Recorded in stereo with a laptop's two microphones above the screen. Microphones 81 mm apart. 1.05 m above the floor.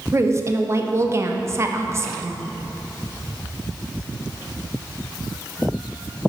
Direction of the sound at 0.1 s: 35° right (ahead or behind).